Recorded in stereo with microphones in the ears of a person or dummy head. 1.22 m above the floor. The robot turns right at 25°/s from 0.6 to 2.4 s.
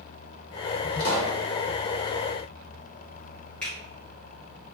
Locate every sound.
1.0 s a pop: 55° left (ahead or behind), 1.3 m
3.6 s a finger snap: 10° left (ahead or behind), 1.4 m